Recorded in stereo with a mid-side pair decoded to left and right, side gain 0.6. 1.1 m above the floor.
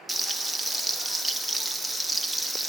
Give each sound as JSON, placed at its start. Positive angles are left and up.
{"t": 0.1, "sound": "frying", "azimuth_deg": 0, "distance_m": 1.5}